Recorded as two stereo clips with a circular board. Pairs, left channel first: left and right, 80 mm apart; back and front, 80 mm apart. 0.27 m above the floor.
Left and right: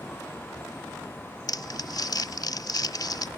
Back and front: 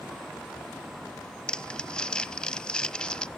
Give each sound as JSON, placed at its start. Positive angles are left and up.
{"t": 1.5, "sound": "crumpling", "azimuth_deg": 105, "distance_m": 0.5}